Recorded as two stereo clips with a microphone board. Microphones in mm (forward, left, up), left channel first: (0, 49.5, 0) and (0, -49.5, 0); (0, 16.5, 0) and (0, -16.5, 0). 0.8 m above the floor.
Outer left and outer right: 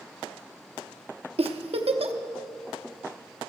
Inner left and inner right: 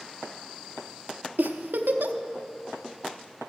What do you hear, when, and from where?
1.4 s a giggle: 85° right, 0.7 m